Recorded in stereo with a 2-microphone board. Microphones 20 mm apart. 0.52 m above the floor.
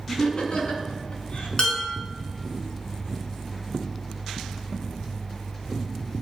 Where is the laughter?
40° left (ahead or behind), 4.5 m; by 1.5 s 50° left (ahead or behind), 4.5 m.